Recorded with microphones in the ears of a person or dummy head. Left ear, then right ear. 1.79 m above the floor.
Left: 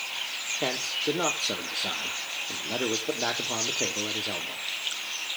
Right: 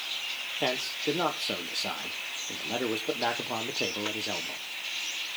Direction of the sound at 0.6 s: 15° right (ahead or behind).